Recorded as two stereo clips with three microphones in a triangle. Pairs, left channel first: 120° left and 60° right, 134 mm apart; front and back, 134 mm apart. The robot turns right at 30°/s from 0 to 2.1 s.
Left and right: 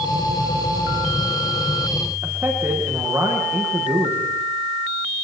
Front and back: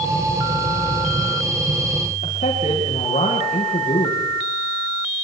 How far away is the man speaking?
About 8 m.